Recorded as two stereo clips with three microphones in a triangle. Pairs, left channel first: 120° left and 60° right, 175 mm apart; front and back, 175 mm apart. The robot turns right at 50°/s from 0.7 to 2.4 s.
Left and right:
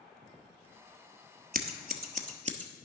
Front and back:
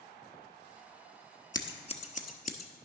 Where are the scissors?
65° right, 0.9 m; by 2.7 s 20° right, 0.9 m.